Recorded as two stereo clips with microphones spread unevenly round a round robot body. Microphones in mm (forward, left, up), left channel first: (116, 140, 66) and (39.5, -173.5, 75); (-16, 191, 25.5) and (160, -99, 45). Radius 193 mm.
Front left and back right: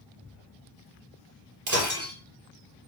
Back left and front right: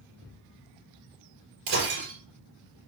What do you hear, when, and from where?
1.7 s breaking glass: 75° right, 5.5 m